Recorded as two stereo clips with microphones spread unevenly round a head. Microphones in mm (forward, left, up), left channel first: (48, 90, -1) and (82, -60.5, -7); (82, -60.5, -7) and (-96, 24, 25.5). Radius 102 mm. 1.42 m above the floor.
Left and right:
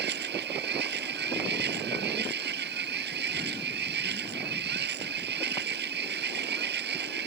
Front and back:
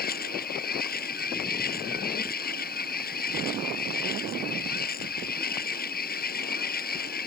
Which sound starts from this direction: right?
A machine running, at 0.0 s.